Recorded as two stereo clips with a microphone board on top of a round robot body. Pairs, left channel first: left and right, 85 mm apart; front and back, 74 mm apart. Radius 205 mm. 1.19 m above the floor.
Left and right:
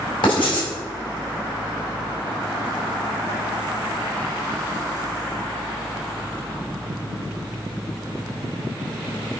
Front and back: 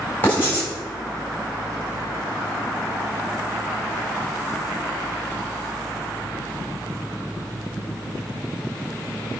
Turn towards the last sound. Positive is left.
turn(degrees=65)